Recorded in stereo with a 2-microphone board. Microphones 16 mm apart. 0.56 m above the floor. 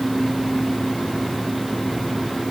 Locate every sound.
Only background noise.